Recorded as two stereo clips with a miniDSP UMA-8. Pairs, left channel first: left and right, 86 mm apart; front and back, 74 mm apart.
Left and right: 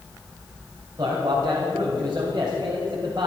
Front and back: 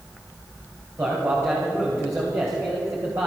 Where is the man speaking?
130° right, 2.5 m.